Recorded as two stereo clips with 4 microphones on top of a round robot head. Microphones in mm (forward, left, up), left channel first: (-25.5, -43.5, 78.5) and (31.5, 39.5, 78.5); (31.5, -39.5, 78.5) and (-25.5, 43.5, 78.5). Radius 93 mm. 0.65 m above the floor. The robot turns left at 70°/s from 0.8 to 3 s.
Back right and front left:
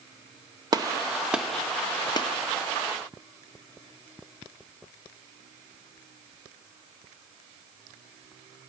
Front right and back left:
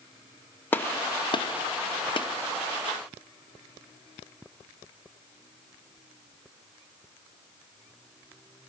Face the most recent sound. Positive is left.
turn(degrees=-140)